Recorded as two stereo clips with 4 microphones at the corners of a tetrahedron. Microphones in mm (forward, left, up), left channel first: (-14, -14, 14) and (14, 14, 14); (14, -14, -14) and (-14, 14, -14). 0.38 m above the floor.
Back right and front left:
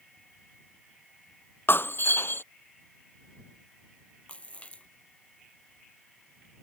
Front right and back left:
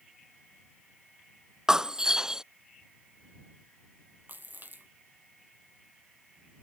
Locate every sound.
1.7 s breaking glass: 150° right
4.3 s a splash: 165° left